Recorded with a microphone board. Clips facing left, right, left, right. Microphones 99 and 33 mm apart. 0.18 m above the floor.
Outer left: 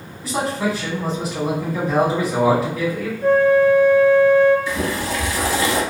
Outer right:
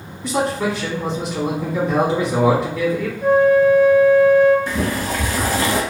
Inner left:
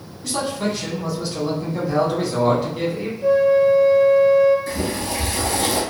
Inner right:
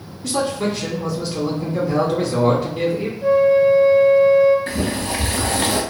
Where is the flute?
15° right (ahead or behind), 0.6 m.